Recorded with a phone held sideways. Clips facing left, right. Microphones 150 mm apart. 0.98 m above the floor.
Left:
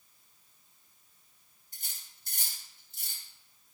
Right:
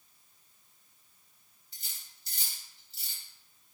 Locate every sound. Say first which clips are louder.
1.7 s cutlery clinking: left 1 dB; 50° left (ahead or behind), 3 m